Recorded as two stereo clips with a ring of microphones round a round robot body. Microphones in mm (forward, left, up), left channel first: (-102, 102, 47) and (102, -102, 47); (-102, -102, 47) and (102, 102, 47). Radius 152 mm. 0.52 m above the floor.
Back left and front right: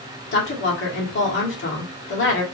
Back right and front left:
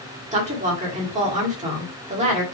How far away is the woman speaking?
About 1.6 m.